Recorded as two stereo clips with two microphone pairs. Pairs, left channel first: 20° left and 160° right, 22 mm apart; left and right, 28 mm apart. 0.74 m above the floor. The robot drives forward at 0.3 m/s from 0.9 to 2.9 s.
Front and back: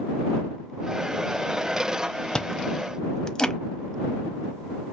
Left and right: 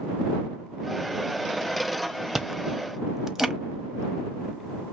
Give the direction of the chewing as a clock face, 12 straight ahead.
1 o'clock.